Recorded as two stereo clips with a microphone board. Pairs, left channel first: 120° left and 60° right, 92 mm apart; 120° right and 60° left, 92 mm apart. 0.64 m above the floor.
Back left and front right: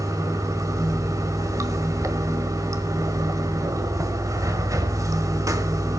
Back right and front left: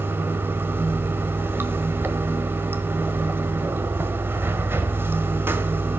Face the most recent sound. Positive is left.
turn(degrees=-5)